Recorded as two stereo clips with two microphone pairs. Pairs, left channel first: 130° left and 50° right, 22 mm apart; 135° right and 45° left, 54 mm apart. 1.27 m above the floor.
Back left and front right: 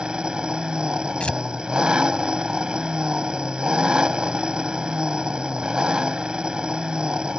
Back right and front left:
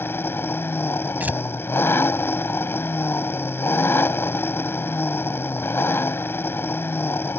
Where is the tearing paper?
100° left.